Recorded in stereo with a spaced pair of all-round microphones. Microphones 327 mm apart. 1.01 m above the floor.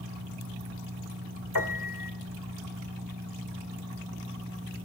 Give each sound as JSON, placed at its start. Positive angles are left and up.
{"t": 1.6, "sound": "a piano", "side_deg": 70, "distance_m": 1.5}